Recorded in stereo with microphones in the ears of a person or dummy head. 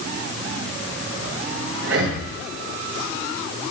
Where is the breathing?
70° right (ahead or behind), 1.3 m.